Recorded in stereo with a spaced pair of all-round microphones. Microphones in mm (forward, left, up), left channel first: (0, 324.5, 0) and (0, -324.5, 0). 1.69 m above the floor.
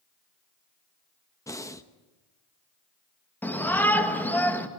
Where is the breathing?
5° left (ahead or behind), 1.0 m.